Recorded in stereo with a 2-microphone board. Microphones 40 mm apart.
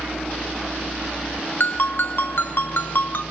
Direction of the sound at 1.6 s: 55° left (ahead or behind).